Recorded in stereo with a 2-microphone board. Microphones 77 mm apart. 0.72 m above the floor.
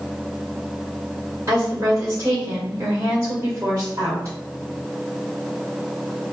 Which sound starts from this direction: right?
A woman speaking, at 1.5 s.